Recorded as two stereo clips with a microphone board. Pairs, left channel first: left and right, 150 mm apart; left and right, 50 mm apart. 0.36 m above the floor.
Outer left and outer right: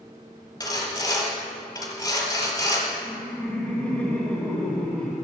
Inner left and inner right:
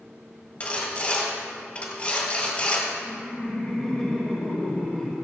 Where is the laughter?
10° left (ahead or behind), 1.2 m.